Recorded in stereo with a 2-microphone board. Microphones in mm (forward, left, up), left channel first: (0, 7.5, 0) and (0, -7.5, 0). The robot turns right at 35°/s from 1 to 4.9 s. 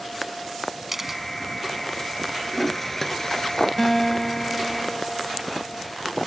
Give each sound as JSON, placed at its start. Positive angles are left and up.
{"t": 0.9, "sound": "a camera shutter", "side_deg": -15}
{"t": 2.5, "sound": "a toilet flushing", "azimuth_deg": 5}
{"t": 3.8, "sound": "a guitar", "side_deg": 15}